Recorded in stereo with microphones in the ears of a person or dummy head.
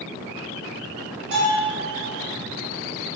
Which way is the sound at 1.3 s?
75° right (ahead or behind).